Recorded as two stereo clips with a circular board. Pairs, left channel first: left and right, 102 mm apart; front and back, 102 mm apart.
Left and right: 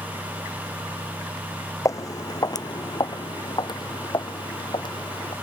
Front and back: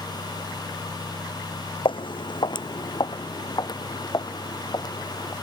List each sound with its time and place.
1.9 s footsteps: 35° left; by 5.3 s 50° left